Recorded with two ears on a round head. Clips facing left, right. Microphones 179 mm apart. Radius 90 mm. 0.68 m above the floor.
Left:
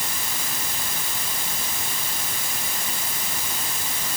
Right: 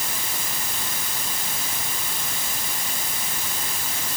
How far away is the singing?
No singing in this recording.